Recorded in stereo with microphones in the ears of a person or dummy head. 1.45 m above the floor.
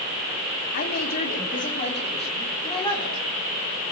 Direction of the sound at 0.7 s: 55° left (ahead or behind).